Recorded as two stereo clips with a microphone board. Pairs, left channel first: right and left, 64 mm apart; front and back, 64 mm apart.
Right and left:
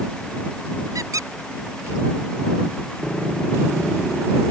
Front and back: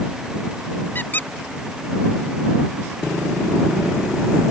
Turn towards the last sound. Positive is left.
turn(degrees=60)